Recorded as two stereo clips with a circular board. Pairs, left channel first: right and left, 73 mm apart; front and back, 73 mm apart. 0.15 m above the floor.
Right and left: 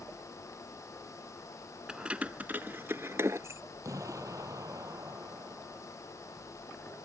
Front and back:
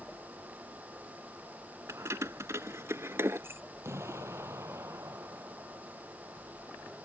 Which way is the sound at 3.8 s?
130° left.